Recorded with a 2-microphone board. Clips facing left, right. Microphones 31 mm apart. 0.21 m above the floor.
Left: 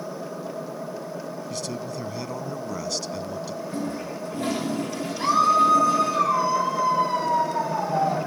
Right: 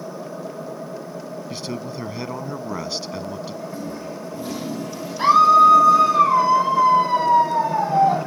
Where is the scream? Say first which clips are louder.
Right 7 dB; 30° right (ahead or behind), 1.9 m.